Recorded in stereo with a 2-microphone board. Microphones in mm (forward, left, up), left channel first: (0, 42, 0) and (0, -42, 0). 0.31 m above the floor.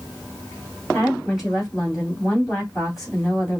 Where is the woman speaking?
5° right (ahead or behind), 2 m.